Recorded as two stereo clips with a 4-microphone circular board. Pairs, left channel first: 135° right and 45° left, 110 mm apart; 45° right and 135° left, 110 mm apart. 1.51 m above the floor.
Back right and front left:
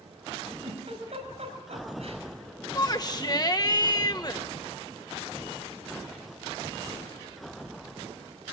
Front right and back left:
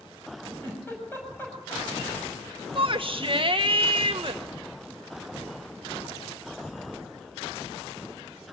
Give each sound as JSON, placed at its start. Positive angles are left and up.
{"t": 0.6, "sound": "a giggle", "azimuth_deg": 25, "distance_m": 7.0}
{"t": 2.8, "sound": "a shout", "azimuth_deg": 175, "distance_m": 1.7}